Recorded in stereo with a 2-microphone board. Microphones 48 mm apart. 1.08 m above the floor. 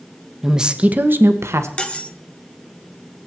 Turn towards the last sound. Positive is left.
turn(degrees=20)  # may be behind; listen again after turning